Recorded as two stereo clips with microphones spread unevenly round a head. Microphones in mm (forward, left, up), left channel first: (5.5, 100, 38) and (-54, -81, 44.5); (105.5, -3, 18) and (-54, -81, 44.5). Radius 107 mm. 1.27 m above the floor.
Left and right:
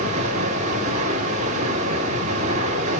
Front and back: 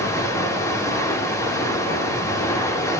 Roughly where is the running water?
Ahead right.